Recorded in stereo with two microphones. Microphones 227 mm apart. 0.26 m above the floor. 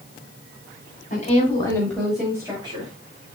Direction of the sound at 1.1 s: 35° left (ahead or behind).